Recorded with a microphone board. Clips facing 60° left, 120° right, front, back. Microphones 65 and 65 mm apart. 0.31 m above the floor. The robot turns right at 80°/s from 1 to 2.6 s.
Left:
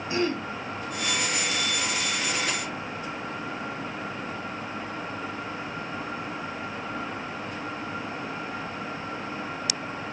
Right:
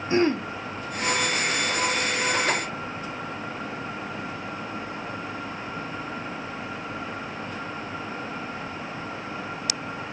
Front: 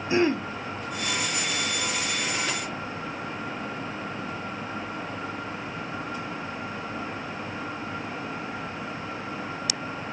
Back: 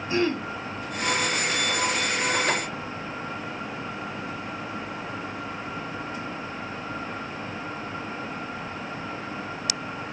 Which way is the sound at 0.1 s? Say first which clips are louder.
Right 5 dB, front 2 dB; 70° right.